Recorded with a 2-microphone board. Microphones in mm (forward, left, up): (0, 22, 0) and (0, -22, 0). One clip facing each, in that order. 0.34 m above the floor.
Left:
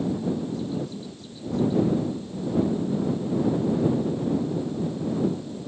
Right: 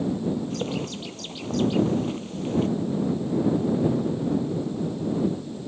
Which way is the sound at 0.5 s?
85° right.